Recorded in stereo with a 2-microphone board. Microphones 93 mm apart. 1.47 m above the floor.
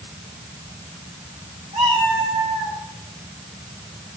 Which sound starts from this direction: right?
A cat meowing, at 1.7 s.